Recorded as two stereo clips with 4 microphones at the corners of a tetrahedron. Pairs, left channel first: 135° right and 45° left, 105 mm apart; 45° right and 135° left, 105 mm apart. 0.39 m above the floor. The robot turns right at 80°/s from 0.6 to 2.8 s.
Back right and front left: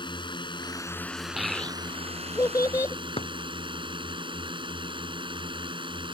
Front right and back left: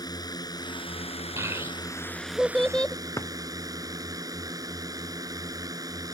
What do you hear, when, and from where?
0.0 s a drone: 95° right; by 6.2 s 80° left
1.4 s a child speaking: 130° left; by 3.0 s 115° right
3.2 s a drawer: 110° right